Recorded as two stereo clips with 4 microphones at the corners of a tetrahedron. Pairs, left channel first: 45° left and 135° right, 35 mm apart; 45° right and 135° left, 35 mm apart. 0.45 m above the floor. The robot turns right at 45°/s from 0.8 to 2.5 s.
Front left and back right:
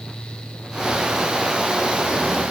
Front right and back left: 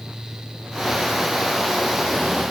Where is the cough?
No cough in this recording.